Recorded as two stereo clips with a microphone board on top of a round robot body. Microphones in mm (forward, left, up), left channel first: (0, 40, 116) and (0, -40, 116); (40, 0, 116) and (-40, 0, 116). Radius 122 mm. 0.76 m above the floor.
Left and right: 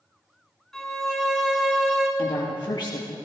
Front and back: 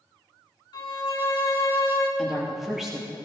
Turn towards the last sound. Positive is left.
turn(degrees=95)